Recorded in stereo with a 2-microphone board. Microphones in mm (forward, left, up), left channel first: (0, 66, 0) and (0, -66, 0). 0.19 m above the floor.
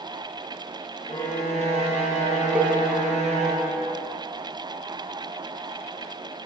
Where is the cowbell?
10° right (ahead or behind), 0.5 m.